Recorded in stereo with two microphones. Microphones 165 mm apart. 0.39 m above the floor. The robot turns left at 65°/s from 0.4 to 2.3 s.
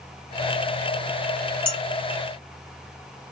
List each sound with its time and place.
1.7 s dishes clattering: 35° right (ahead or behind), 1.3 m; by 1.8 s 25° right (ahead or behind), 1.3 m